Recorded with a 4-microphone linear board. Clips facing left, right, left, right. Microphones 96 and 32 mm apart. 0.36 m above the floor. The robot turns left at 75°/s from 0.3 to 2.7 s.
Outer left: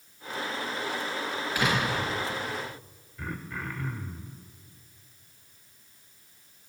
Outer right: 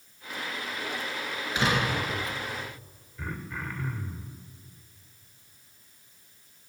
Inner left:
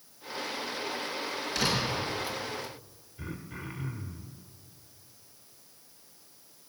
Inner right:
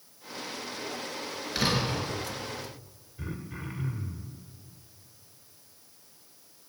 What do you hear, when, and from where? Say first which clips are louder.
1.6 s a door slam: outer right 1 dB, inner right 2 dB; 20° right, 4.5 m; by 2.1 s 60° right, 4.5 m
3.2 s throat clearing: even, inner right 1 dB; centre (ahead or behind), 1.3 m